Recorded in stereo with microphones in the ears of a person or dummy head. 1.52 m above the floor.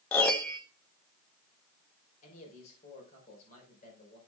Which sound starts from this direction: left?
A man speaking, at 2.2 s.